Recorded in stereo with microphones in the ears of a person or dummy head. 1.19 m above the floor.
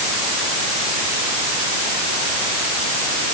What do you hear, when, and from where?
Only background noise.